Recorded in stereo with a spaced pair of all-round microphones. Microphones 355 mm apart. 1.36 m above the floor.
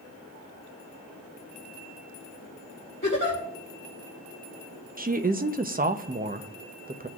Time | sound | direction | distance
3.0 | a giggle | 40° left (ahead or behind) | 4 m
5.0 | a woman speaking | 25° right (ahead or behind) | 0.7 m